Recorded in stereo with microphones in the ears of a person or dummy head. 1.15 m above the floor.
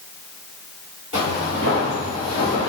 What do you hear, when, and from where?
1.1 s footsteps: 40° left (ahead or behind), 1.7 m; by 2.7 s 50° left (ahead or behind), 1.6 m